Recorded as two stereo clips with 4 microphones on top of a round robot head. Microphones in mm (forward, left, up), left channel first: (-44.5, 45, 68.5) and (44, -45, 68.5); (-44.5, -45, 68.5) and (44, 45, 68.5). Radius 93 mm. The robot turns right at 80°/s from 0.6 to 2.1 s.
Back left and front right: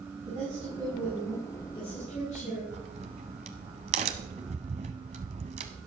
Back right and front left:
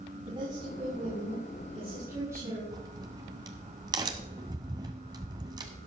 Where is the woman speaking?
5° right, 5.5 m; by 2.6 s 115° left, 5.5 m.